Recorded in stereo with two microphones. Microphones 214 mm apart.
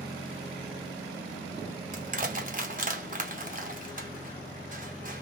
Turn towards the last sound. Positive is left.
turn(degrees=-40)  # may be behind; listen again after turning